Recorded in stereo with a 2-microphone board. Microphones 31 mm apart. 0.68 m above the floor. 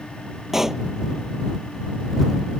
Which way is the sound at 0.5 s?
15° right (ahead or behind).